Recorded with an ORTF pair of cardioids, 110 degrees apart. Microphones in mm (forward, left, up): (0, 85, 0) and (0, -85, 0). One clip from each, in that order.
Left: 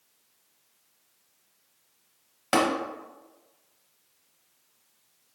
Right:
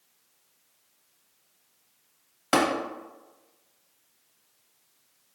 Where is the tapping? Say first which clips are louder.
Even; 5° right, 1.0 m.